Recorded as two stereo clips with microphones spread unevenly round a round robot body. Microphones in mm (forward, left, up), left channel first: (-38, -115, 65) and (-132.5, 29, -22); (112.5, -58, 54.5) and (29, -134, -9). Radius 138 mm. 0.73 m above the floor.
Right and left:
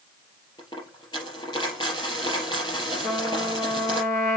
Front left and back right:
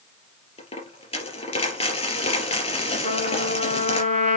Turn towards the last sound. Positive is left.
turn(degrees=20)